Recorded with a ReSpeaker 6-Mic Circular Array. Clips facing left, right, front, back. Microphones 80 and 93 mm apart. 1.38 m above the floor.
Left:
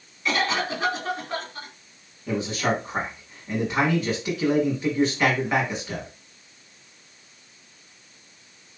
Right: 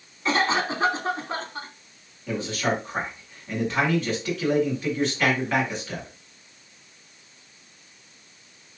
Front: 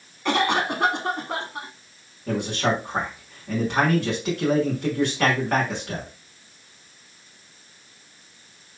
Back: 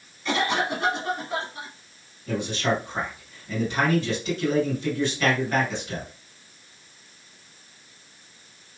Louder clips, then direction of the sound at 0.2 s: Right 2 dB, front 3 dB; 30° right.